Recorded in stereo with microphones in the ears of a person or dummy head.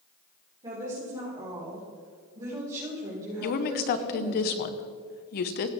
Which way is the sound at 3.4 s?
45° left (ahead or behind).